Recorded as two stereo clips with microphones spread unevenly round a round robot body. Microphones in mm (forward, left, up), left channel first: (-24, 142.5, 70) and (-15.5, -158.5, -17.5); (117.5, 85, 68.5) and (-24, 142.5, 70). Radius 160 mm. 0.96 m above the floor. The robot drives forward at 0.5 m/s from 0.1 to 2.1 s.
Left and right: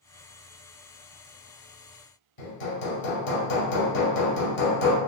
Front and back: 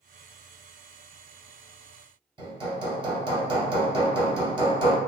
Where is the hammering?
110° left, 0.7 m.